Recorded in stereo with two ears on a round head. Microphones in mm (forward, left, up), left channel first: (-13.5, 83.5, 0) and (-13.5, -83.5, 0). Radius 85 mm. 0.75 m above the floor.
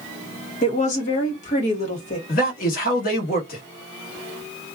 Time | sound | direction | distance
0.6 | a woman speaking | 40° left (ahead or behind) | 1.2 m
2.3 | a man speaking | 50° left (ahead or behind) | 1.3 m